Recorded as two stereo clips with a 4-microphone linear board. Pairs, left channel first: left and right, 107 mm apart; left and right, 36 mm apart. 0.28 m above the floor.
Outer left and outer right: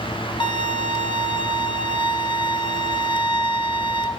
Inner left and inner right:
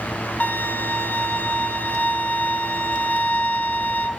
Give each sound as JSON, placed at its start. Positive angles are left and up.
{"t": 0.4, "sound": "a violin", "side_deg": 50, "distance_m": 1.5}